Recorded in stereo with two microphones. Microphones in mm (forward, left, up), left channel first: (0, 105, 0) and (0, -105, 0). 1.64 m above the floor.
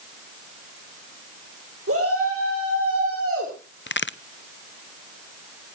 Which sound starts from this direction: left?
A crack, at 3.9 s.